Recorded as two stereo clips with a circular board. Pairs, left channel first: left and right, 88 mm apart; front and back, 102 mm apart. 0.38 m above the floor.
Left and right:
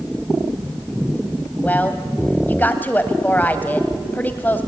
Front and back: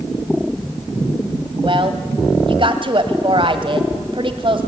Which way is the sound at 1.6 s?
160° left.